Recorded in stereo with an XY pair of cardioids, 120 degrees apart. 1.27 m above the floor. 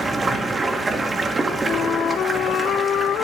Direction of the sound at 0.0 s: 25° right.